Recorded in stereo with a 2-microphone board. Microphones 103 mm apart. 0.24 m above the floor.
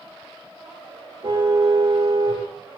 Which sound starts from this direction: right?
A car horn, at 1.2 s.